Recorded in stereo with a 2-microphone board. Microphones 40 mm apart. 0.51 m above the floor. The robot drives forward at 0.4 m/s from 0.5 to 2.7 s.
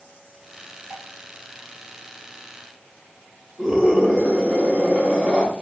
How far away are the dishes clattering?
About 1.0 m.